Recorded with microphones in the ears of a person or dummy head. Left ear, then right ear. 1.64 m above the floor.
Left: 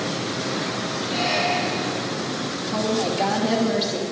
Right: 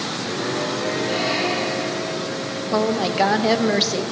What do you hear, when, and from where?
1.1 s a squeak: 30° right (ahead or behind), 5 m
2.7 s a woman speaking: 60° right (ahead or behind), 0.7 m